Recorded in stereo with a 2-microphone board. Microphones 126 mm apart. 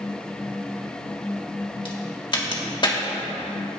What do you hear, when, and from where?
1.9 s a crack: 40° left (ahead or behind), 1.8 m